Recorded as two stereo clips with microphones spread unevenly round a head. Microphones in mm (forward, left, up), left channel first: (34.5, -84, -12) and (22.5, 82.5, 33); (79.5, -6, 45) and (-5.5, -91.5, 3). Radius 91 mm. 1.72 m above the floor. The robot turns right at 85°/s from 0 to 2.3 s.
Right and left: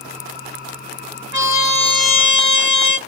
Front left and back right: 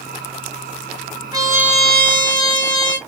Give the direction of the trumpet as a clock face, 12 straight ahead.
2 o'clock.